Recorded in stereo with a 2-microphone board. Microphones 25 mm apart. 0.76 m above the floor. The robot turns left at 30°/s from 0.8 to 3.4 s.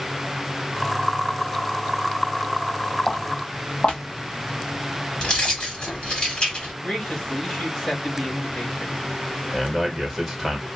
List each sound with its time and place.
3.1 s footsteps: 45° left (ahead or behind), 1.5 m; by 5.7 s 25° left (ahead or behind), 1.7 m
5.2 s keys jangling: 40° left (ahead or behind), 1.7 m
6.8 s a man speaking: 30° left (ahead or behind), 1.5 m
9.5 s a man speaking: centre (ahead or behind), 0.7 m